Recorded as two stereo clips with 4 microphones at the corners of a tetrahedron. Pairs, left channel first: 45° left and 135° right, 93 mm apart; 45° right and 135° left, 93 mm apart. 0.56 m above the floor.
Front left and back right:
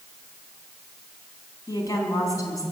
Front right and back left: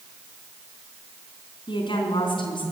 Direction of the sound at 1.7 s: 10° right.